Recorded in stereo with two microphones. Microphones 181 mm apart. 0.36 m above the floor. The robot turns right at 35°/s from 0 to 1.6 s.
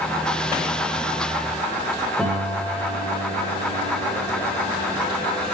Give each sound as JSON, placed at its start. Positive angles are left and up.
{"t": 2.2, "sound": "a piano", "side_deg": -5, "distance_m": 7.0}